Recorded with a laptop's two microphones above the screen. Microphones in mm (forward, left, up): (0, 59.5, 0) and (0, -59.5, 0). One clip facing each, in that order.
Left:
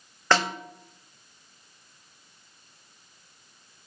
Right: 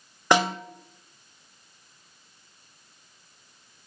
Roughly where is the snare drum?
Centre.